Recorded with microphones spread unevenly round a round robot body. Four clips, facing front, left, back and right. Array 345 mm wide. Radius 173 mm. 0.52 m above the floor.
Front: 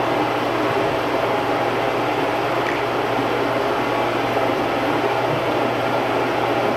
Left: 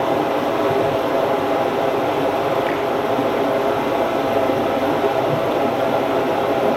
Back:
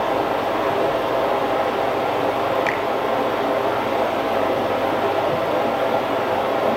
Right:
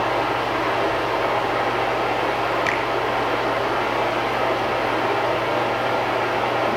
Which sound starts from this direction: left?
Running water, at 0.0 s.